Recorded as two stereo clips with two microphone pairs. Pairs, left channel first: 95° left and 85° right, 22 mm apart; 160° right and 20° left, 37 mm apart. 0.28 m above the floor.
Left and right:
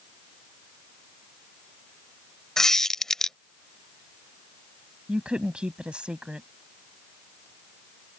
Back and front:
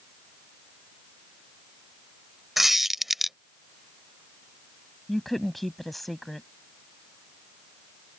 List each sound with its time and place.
2.6 s a squeak: 95° left
5.1 s a woman speaking: 75° right